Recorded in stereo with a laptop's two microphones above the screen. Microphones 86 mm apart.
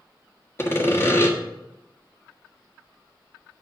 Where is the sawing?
30° left (ahead or behind), 1.7 m.